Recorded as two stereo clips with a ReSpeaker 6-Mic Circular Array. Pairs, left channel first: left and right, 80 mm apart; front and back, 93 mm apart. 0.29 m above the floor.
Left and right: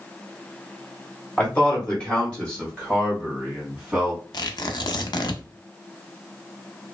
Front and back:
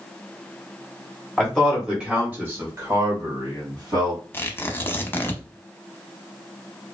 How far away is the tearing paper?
About 0.5 m.